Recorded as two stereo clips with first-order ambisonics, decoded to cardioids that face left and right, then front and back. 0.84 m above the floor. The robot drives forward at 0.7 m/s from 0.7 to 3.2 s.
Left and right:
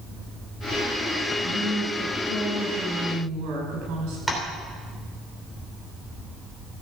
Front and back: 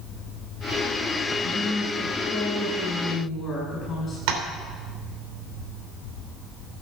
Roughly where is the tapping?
Behind.